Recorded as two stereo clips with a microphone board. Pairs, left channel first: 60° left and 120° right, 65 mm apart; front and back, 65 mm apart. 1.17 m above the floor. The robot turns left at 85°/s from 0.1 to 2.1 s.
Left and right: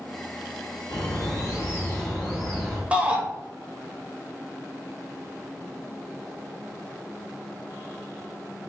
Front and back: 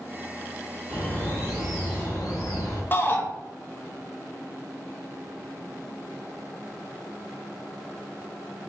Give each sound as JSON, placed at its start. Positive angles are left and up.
{"t": 0.9, "sound": "a bird", "azimuth_deg": 75, "distance_m": 1.1}
{"t": 2.9, "sound": "a shout", "azimuth_deg": -55, "distance_m": 0.6}